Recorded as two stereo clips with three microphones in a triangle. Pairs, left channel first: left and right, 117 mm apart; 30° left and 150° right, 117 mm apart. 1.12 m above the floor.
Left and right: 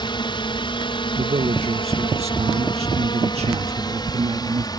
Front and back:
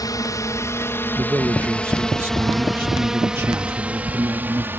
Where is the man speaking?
80° right.